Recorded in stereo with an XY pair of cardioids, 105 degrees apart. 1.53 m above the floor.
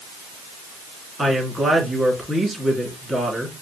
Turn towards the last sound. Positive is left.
turn(degrees=-10)